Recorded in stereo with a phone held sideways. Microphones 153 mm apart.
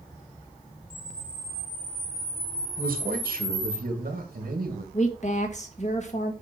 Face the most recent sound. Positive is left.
turn(degrees=50)  # may be behind; listen again after turning